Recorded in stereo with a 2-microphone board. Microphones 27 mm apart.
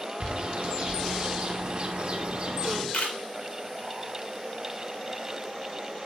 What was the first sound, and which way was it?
A bird, 45° right (ahead or behind).